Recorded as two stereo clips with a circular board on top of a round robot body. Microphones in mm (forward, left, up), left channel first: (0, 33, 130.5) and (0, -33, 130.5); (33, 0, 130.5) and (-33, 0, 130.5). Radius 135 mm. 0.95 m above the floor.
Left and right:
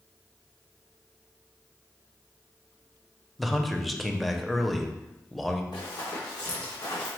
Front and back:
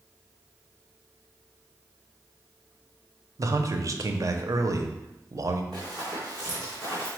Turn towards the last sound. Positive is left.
turn(degrees=90)